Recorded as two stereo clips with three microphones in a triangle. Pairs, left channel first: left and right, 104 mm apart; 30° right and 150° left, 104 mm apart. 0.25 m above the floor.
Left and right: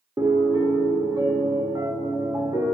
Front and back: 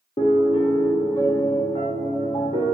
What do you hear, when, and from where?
0.2 s a piano: 40° right, 0.7 m